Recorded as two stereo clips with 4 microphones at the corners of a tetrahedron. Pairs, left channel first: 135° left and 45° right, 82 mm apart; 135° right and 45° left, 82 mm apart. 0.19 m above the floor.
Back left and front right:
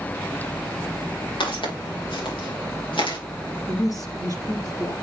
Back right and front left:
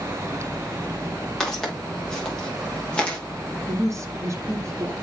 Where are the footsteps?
140° left, 6.5 m; by 3.2 s 150° left, 4.5 m.